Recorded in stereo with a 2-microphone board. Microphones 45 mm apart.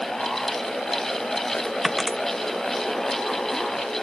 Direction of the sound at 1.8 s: 5° right (ahead or behind).